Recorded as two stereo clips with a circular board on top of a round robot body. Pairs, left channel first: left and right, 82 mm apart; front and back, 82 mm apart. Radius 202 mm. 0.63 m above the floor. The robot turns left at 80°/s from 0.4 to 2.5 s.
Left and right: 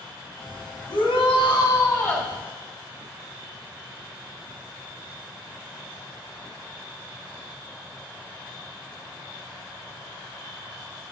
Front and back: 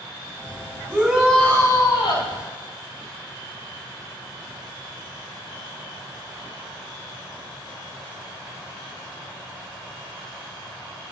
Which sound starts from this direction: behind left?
A shout, at 0.9 s.